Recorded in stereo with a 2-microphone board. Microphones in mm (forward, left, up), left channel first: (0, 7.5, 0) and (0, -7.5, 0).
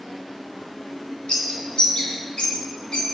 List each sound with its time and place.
1.3 s a bird: 70° left (ahead or behind), 2.5 m